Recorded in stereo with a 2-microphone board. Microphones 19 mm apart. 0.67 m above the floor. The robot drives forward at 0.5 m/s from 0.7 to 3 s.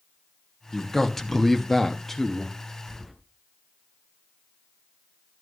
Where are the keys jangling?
10° right (ahead or behind), 2.5 m.